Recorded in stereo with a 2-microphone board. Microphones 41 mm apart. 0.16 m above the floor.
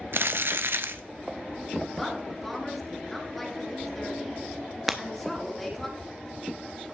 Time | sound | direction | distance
0.1 | crumpling | 70° right (ahead or behind) | 0.6 m
1.9 | a woman speaking | 5° left (ahead or behind) | 3 m
4.9 | breaking glass | 5° right (ahead or behind) | 0.5 m